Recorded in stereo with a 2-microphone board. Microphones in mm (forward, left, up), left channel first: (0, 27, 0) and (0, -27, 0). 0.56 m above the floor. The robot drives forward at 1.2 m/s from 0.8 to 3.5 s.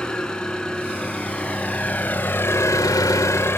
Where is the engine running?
15° left (ahead or behind), 2.5 m; by 3.6 s 45° left (ahead or behind), 0.9 m.